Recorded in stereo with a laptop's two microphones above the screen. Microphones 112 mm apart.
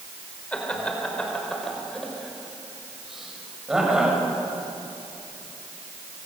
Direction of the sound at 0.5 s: 10° left (ahead or behind).